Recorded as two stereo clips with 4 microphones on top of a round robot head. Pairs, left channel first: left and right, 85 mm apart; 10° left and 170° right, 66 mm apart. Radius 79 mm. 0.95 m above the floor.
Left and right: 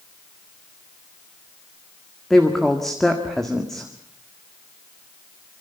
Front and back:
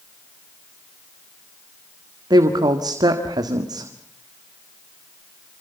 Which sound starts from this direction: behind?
A woman speaking, at 2.3 s.